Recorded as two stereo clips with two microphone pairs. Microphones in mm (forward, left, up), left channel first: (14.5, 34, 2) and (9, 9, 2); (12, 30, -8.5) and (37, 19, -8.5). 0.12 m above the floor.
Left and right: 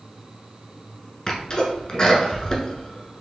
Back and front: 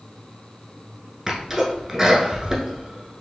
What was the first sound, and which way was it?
A sneeze, 40° left.